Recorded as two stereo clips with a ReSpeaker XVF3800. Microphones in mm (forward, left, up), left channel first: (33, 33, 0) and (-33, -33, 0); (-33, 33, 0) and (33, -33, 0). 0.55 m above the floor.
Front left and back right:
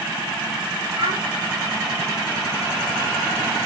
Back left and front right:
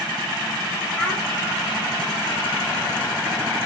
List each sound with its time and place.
1.0 s a child speaking: 150° right, 7 m